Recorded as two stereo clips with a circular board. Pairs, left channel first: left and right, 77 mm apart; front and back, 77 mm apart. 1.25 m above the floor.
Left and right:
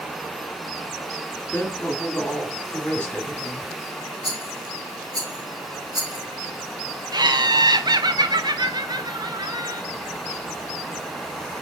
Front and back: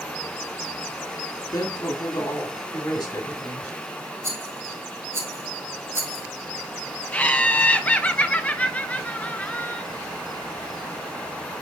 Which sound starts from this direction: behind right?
A rattle, at 4.2 s.